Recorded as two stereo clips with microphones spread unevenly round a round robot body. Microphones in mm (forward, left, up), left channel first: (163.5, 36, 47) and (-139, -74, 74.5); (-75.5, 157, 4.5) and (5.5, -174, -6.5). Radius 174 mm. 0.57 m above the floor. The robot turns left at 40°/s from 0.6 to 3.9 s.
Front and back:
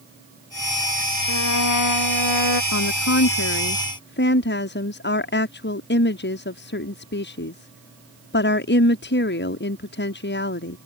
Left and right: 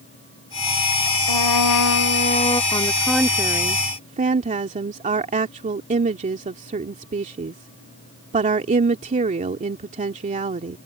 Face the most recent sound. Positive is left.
turn(degrees=-15)